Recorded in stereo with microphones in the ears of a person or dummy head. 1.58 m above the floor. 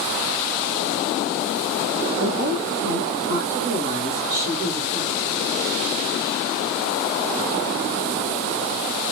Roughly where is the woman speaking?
Right.